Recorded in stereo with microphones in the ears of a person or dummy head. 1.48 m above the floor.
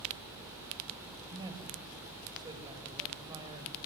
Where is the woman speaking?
25° right (ahead or behind), 6 m.